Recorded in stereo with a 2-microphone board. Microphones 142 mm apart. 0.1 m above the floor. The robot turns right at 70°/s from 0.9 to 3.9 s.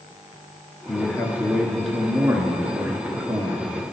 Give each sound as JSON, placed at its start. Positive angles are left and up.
{"t": 0.9, "sound": "a man speaking", "side_deg": 20, "distance_m": 1.1}